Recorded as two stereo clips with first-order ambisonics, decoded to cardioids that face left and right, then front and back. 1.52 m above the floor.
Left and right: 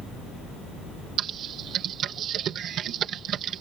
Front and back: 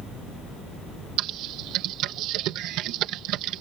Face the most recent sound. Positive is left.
turn(degrees=-145)